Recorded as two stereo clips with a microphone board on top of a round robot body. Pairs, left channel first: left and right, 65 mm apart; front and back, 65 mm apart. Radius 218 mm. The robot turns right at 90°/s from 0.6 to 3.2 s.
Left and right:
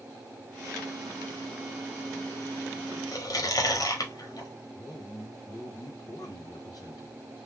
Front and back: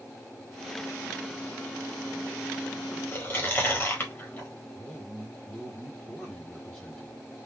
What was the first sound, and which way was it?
Chewing, 55° left.